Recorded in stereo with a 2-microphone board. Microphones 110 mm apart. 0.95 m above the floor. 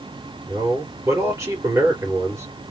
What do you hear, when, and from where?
0.5 s a man speaking: 30° right (ahead or behind), 3.5 m